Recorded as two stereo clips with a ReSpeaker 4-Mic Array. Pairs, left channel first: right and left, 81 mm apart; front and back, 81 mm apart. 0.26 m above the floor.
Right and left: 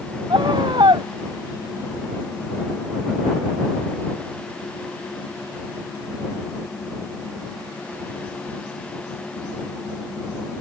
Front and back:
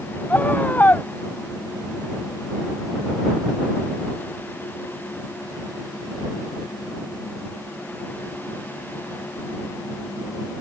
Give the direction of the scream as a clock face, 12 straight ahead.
10 o'clock.